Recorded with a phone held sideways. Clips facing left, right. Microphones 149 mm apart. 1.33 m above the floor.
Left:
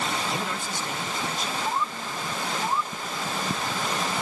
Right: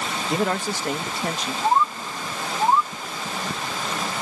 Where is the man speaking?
75° right (ahead or behind).